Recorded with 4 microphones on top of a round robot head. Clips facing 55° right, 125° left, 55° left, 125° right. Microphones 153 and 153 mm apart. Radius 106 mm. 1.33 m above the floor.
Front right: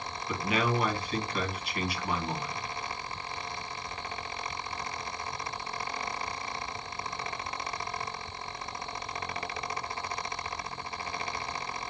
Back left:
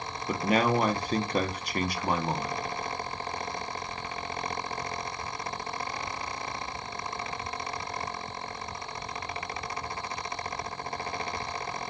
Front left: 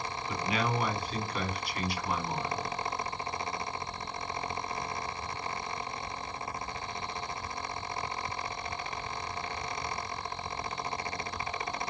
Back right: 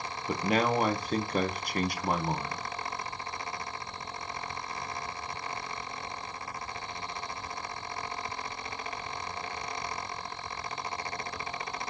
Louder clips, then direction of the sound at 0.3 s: Back left 4 dB, back right 5 dB; straight behind.